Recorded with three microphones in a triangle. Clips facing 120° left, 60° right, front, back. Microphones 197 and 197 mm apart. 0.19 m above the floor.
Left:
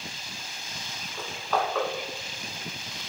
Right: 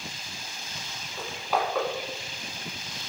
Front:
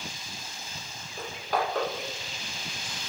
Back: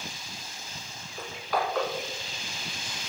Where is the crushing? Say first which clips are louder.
Even, even; 20° left, 0.9 m.